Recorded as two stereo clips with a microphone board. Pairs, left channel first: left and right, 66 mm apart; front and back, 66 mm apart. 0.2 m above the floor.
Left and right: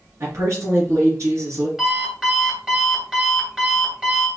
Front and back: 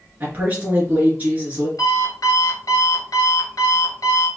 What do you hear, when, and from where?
0.2 s a woman speaking: 120° right, 2.5 m
1.8 s an alarm clock: 10° right, 1.7 m